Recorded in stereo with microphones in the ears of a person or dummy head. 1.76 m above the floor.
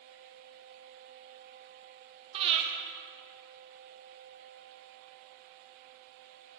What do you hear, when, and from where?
2.3 s breathing: 30° right (ahead or behind), 1.3 m